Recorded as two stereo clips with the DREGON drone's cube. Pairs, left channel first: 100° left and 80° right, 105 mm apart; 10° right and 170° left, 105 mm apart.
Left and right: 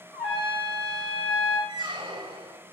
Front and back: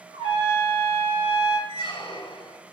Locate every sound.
0.1 s a trumpet: 175° right, 1.3 m
1.7 s a squeak: 50° right, 0.8 m